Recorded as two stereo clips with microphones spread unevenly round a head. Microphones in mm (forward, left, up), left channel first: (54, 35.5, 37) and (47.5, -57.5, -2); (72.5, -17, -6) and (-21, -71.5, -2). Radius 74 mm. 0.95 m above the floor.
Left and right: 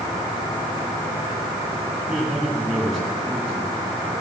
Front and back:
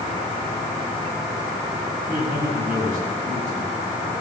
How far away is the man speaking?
About 9.5 m.